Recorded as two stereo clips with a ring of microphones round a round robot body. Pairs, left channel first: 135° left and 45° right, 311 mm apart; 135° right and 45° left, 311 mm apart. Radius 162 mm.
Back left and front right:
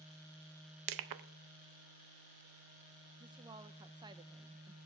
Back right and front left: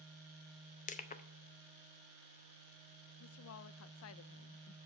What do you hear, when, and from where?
0.9 s crushing: 70° right, 0.6 m
3.2 s a woman speaking: 115° right, 0.5 m